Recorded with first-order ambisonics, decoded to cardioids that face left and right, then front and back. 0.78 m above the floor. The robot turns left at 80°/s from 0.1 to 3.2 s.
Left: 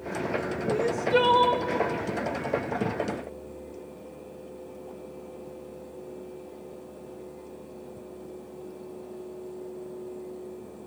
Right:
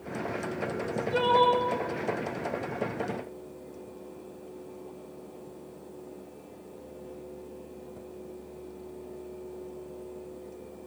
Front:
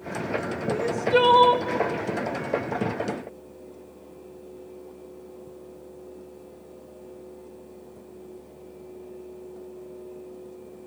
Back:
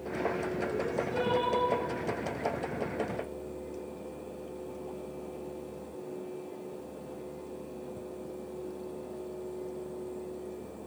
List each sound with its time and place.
0.7 s crying: 65° left, 1.4 m; by 1.7 s 15° right, 1.4 m